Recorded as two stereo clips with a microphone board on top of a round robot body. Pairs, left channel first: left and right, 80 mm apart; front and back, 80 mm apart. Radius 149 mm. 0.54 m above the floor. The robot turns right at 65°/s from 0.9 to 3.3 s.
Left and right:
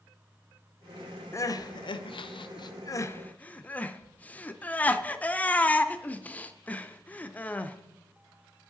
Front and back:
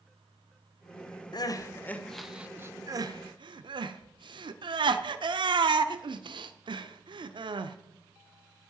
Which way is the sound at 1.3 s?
35° left.